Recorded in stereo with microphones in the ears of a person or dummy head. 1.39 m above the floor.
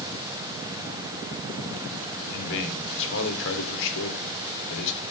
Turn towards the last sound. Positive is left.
turn(degrees=70)  # may be behind; listen again after turning